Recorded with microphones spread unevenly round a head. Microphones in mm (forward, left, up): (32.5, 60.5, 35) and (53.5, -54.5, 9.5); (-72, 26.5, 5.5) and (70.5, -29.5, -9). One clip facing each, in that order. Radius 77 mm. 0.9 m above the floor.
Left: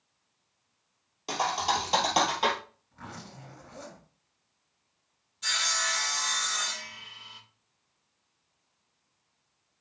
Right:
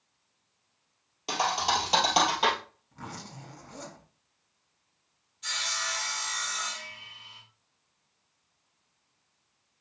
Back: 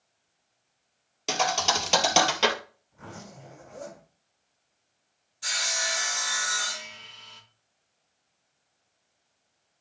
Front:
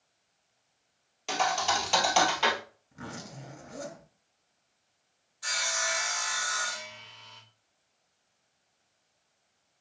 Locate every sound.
1.3 s a thud: 175° right, 2.0 m
2.9 s a zipper: 30° right, 6 m
5.4 s sawing: 105° left, 3 m